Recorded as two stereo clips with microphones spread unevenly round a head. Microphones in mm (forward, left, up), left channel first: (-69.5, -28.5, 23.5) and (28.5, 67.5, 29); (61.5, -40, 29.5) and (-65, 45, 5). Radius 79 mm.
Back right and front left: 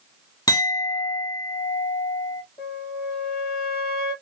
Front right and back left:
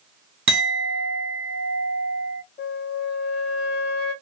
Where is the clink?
165° left, 1.3 m.